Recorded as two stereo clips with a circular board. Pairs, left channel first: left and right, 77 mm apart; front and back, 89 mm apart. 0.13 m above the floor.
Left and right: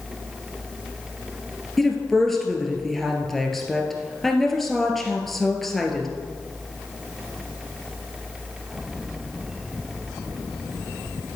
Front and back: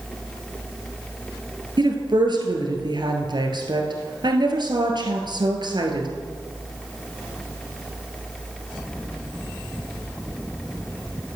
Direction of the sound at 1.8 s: 175° left.